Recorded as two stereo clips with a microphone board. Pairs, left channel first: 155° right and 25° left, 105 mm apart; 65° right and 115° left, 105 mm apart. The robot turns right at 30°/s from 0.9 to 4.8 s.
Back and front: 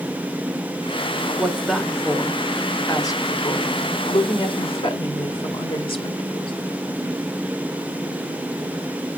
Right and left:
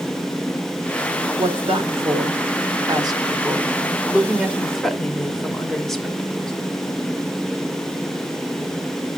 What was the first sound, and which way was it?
A woman speaking, 105° left.